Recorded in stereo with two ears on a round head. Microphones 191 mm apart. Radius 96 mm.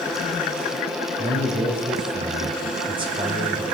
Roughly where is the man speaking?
Right.